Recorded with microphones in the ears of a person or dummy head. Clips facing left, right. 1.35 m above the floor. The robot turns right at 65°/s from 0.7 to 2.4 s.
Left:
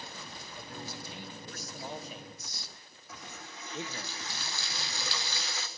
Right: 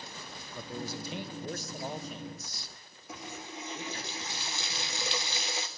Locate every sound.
0.6 s a man speaking: 95° right, 0.9 m; by 4.1 s 20° left, 0.9 m
3.1 s a running tap: 20° right (ahead or behind), 0.6 m